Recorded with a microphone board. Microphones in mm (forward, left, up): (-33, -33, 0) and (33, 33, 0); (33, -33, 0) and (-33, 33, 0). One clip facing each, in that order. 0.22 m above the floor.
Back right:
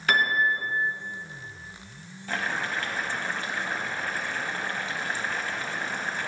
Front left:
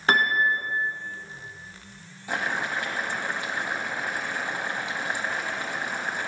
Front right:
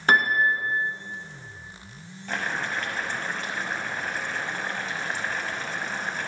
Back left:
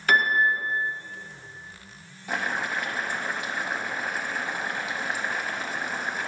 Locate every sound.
0.1 s a piano: straight ahead, 1.1 m
2.3 s boiling: 75° left, 0.9 m